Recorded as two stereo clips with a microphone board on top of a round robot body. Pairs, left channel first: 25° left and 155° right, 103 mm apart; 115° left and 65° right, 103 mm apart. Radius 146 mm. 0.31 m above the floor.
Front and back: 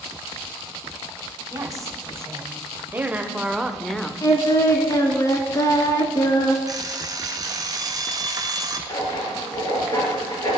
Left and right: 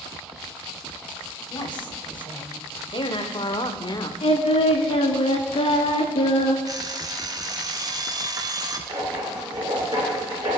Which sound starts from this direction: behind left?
A woman speaking, at 1.5 s.